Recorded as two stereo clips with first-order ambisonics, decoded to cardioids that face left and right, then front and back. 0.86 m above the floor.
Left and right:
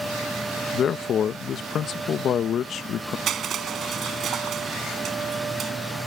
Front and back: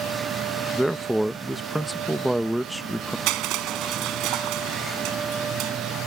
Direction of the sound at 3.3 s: 150° right.